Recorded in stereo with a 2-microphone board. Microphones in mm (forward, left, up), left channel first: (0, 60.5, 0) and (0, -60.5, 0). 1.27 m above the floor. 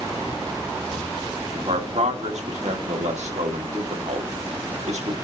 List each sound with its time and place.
1.6 s a man speaking: 80° right, 1.9 m